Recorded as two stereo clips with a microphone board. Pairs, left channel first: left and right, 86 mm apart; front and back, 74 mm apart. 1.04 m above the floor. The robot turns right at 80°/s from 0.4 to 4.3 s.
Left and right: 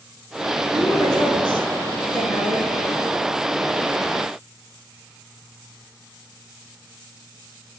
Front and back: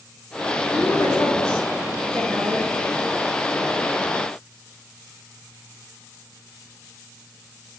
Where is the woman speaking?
25° left, 5.5 m; by 2.7 s 175° right, 5.5 m.